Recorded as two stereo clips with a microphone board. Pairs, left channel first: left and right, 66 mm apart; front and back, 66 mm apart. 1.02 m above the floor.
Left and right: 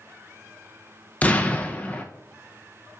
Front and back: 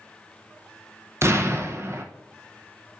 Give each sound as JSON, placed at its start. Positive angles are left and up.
{"t": 1.2, "sound": "an explosion", "azimuth_deg": 150, "distance_m": 0.5}